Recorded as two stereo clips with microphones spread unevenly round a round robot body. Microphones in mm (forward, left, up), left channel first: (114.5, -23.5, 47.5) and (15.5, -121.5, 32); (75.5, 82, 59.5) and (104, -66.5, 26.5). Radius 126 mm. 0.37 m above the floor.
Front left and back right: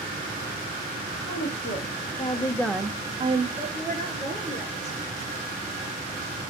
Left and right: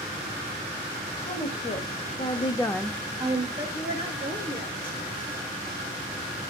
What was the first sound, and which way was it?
A woman speaking, 50° left.